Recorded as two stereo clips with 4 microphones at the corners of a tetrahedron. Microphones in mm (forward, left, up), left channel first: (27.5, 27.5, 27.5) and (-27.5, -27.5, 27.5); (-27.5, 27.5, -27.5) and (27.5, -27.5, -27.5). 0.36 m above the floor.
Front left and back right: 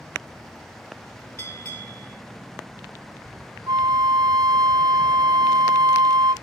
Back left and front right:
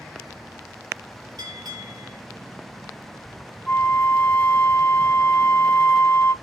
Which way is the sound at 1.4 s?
5° right.